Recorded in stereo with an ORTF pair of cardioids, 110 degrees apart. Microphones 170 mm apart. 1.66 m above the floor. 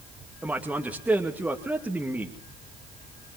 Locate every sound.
0.4 s a man speaking: 10° right, 2.5 m